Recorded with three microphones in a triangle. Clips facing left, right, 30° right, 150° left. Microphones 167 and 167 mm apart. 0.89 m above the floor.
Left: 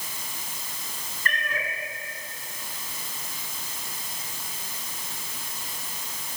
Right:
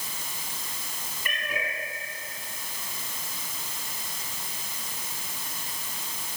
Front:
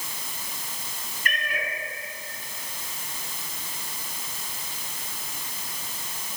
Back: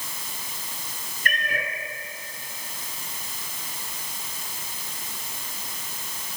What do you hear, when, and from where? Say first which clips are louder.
1.2 s a cat meowing: left 1 dB, back 2 dB; 170° right, 2.5 m